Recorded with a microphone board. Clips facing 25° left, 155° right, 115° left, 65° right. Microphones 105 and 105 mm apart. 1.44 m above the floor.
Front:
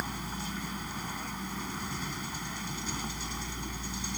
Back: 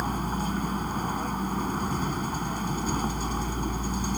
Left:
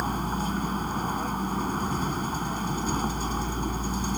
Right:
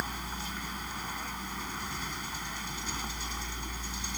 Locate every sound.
0.0 s a vehicle: 160° left